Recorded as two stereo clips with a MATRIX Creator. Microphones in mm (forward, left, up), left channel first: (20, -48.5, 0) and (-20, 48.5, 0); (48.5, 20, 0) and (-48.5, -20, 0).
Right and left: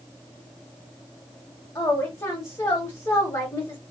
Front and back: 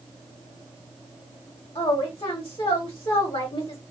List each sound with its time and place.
1.8 s a woman speaking: 10° right, 1.0 m